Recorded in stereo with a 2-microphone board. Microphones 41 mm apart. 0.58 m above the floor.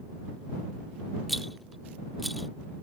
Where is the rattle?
Centre (ahead or behind).